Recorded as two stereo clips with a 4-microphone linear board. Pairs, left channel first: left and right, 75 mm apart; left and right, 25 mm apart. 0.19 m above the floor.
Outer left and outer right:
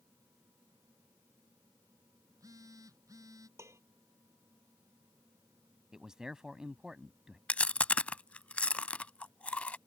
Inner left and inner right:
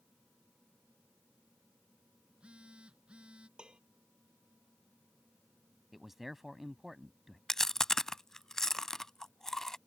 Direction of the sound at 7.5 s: 20° left (ahead or behind).